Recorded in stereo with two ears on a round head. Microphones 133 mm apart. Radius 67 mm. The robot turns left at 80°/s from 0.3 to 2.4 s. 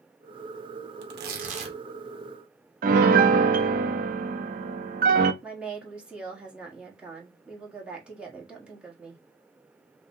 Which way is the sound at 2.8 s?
60° right (ahead or behind).